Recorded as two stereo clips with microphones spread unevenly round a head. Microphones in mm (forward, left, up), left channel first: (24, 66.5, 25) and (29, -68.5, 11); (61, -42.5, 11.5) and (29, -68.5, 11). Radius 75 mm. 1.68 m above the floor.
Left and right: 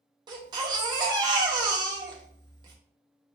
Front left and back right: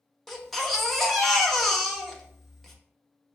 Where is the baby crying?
45° right, 0.6 m.